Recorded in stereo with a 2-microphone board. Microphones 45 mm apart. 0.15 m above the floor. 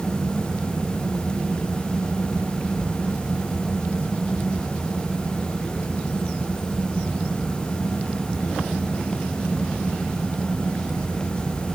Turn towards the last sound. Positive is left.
No sound to turn to.